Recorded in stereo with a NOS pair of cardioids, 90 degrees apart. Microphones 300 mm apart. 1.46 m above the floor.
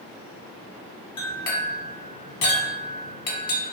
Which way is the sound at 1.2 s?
55° left.